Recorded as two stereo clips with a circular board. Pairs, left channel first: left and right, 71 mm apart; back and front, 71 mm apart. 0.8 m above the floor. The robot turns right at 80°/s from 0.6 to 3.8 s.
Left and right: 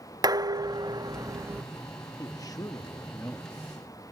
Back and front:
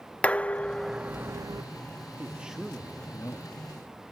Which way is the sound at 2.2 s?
55° left.